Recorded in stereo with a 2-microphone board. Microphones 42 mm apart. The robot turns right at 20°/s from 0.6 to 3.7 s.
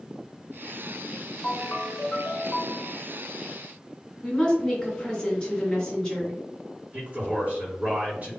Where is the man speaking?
35° right (ahead or behind), 1.9 m.